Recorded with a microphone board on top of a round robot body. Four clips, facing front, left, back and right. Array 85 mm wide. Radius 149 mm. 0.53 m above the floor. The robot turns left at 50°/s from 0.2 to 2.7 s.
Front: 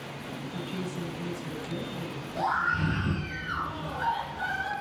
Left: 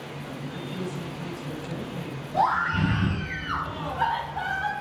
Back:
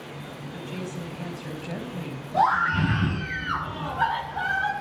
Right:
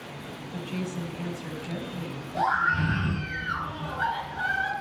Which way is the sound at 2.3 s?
160° left.